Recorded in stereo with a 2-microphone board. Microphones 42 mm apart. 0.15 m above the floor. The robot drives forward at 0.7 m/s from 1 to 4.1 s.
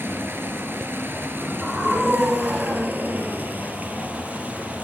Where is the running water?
60° right (ahead or behind), 1.9 m; by 4.8 s 35° right (ahead or behind), 3 m.